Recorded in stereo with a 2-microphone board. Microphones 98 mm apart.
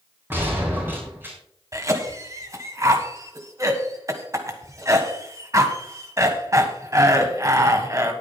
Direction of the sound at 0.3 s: 20° right (ahead or behind).